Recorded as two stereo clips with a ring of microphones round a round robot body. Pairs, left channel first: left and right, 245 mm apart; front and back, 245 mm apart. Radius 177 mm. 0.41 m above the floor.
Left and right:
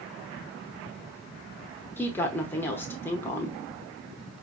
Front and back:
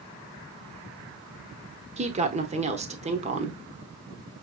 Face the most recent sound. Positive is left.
turn(degrees=160)